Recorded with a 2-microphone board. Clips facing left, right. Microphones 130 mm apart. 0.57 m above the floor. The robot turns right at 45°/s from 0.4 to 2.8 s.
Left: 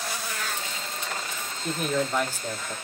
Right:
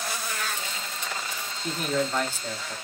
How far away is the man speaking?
About 0.8 m.